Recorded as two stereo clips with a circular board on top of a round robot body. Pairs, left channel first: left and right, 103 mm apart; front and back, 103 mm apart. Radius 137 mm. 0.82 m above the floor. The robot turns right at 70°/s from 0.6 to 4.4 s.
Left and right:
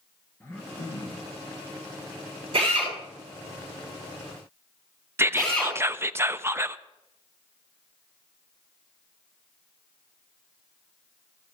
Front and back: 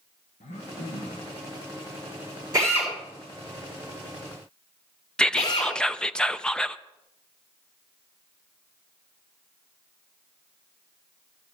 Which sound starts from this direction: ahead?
Throat clearing, at 0.4 s.